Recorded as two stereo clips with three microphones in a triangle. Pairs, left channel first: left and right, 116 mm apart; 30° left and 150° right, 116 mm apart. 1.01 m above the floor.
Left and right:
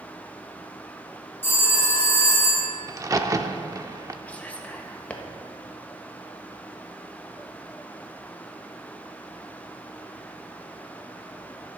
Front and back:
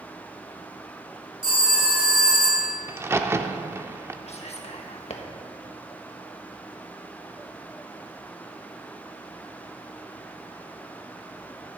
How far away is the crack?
About 0.6 m.